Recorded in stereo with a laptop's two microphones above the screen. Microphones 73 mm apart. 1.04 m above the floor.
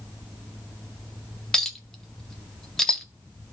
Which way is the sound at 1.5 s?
10° left (ahead or behind).